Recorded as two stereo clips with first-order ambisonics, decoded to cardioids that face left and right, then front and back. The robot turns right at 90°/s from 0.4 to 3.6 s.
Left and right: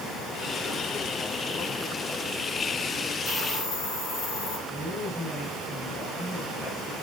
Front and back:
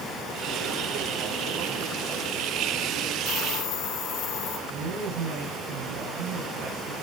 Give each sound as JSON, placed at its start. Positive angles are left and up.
{"t": 3.2, "sound": "a hiss", "azimuth_deg": 10, "distance_m": 4.5}
{"t": 4.7, "sound": "a woman speaking", "azimuth_deg": 165, "distance_m": 7.0}